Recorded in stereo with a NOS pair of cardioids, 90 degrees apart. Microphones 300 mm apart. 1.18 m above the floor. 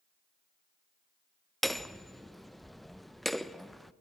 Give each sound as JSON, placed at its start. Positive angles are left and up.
{"t": 1.6, "sound": "hammering", "azimuth_deg": 0, "distance_m": 0.5}